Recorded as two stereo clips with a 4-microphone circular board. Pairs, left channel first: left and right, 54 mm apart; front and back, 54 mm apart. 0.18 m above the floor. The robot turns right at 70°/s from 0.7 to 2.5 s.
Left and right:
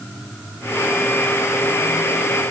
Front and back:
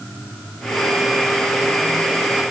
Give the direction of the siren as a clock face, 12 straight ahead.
No siren in this recording.